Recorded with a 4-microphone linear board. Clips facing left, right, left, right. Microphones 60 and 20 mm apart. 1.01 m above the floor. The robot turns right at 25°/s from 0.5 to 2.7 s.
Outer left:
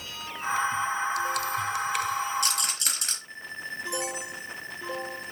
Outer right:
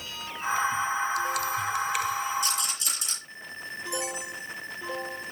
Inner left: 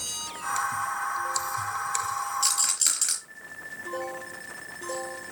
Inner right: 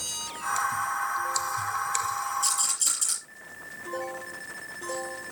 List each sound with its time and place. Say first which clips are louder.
2.4 s a rattle: even, inner left 2 dB; 65° left (ahead or behind), 4 m; by 3.2 s 55° left (ahead or behind), 4 m